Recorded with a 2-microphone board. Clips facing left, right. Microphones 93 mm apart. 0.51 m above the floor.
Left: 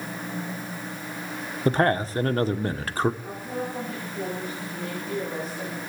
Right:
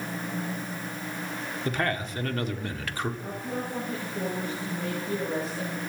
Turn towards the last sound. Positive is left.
turn(degrees=-35)  # may be behind; listen again after turning